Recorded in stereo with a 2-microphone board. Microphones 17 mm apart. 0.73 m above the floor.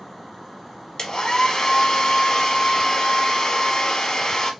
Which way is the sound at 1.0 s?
45° left (ahead or behind).